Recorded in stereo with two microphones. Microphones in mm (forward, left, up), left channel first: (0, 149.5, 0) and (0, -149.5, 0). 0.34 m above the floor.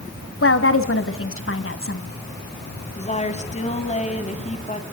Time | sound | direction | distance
0.4 | a woman speaking | 50° left (ahead or behind) | 2 m
3.0 | a woman speaking | 25° left (ahead or behind) | 2.5 m